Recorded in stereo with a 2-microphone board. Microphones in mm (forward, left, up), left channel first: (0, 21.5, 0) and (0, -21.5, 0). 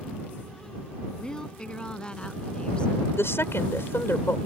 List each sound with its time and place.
1.2 s a woman speaking: 20° left (ahead or behind); by 3.1 s 25° left (ahead or behind)
3.2 s a woman speaking: 70° left (ahead or behind)